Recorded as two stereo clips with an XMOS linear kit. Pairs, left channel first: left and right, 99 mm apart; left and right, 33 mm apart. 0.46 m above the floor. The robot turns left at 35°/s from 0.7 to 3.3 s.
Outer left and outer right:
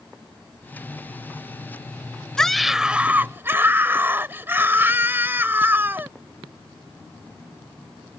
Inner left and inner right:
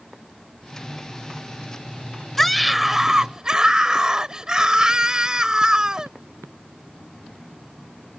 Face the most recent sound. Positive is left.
turn(degrees=-25)